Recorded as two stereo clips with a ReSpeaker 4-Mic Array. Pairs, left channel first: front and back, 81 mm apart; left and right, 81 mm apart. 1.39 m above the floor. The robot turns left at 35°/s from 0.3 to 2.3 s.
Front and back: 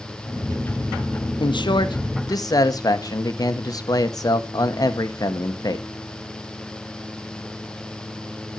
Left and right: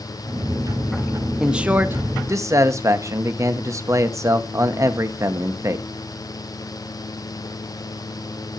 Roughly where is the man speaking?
Ahead.